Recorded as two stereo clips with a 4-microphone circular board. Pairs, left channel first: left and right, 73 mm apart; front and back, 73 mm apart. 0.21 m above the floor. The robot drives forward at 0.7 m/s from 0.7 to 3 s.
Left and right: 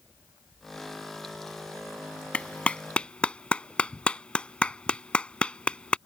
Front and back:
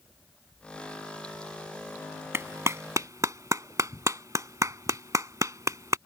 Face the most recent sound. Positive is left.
turn(degrees=160)